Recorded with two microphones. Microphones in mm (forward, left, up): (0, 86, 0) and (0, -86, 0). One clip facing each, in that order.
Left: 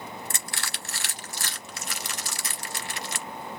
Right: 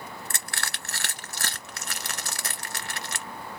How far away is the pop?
No pop in this recording.